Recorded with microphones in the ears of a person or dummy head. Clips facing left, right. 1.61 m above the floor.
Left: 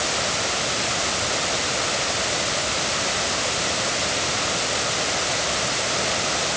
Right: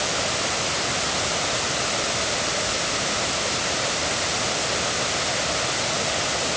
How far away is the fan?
I don't hear a fan.